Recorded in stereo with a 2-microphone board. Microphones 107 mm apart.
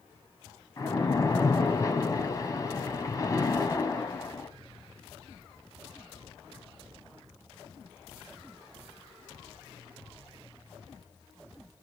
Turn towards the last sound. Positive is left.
turn(degrees=30)  # may be behind; listen again after turning